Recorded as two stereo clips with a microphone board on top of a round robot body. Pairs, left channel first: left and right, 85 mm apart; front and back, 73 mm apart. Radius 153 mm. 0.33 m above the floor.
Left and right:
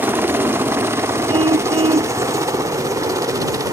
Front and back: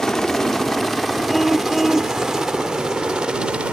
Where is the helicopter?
75° right; by 3.7 s 110° right.